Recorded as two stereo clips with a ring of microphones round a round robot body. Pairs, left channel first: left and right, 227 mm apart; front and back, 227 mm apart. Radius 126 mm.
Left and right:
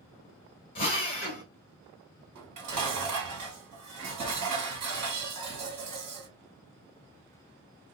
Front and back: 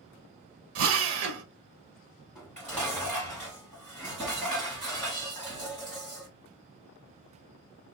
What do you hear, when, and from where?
0.8 s a drill: 160° left, 0.7 m
2.4 s dishes clattering: 90° right, 1.8 m